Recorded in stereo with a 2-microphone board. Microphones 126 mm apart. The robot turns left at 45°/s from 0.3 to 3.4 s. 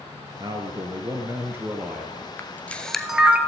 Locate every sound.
0.4 s a man speaking: 90° right, 1.3 m; by 2.3 s 175° right, 1.3 m
2.4 s a camera shutter: 20° left (ahead or behind), 1.0 m; by 3.4 s 10° right (ahead or behind), 1.0 m